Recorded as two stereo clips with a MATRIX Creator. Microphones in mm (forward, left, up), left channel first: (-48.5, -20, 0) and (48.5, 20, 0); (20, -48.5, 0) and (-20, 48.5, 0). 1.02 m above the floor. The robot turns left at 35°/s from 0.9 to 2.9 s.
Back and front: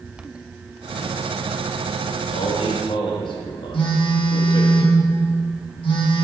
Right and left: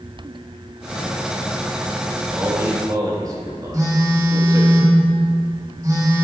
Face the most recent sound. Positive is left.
turn(degrees=170)